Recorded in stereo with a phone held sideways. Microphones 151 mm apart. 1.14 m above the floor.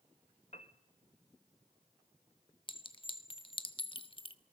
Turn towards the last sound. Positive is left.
turn(degrees=35)  # may be behind; listen again after turning